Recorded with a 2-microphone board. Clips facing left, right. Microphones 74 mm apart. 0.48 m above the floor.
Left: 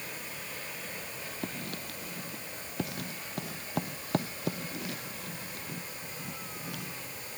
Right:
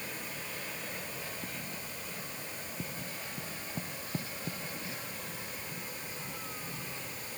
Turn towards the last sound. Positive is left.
turn(degrees=75)  # may be behind; listen again after turning